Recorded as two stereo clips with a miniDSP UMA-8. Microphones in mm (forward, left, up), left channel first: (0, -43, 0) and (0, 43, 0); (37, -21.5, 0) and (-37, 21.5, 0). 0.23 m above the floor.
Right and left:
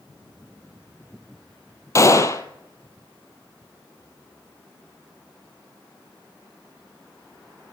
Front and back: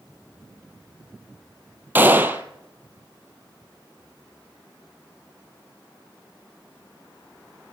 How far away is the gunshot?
About 1.0 m.